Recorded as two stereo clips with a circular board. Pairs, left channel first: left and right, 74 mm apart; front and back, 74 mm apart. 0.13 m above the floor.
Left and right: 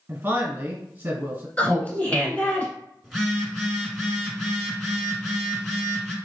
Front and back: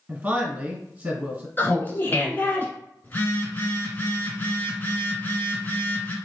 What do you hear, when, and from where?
0.1 s a man speaking: 125° right, 1.3 m
1.6 s laughter: 35° left, 1.3 m
3.0 s a phone buzzing: 5° left, 1.4 m